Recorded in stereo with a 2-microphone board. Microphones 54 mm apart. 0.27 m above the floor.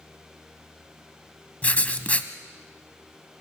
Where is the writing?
25° left (ahead or behind), 1.1 m.